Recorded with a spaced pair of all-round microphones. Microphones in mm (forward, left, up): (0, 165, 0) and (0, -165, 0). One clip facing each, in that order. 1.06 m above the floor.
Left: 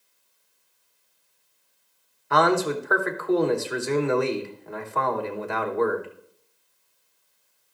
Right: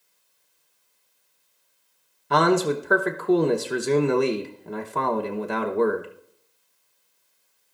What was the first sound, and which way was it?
A man speaking, 45° right (ahead or behind).